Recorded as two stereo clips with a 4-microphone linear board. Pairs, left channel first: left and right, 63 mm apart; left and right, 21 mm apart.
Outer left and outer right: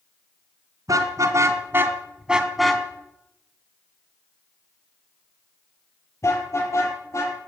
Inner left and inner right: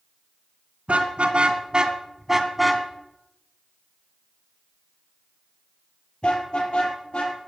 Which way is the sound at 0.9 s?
65° right (ahead or behind).